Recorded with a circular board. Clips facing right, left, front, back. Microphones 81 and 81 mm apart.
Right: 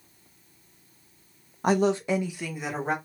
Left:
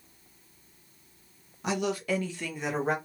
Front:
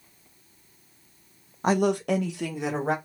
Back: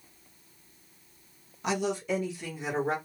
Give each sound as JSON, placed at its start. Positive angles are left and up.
{"t": 1.6, "sound": "a woman speaking", "azimuth_deg": -50, "distance_m": 0.6}